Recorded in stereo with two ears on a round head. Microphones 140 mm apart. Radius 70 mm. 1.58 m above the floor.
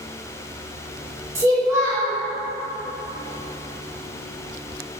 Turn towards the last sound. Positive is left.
turn(degrees=-15)  # may be behind; listen again after turning